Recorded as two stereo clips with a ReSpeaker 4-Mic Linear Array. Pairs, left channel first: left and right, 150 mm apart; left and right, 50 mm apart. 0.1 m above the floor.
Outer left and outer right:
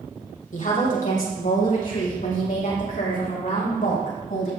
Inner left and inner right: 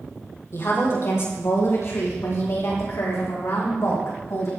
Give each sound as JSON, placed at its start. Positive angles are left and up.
{"t": 0.5, "sound": "a woman speaking", "side_deg": 60, "distance_m": 4.0}